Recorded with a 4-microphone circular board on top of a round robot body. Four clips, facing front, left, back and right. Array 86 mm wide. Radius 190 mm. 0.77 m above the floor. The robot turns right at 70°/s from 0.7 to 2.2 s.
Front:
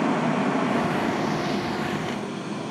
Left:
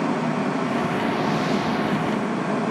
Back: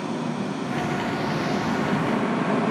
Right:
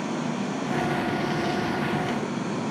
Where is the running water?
35° left, 0.7 m; by 2.7 s 140° left, 0.7 m.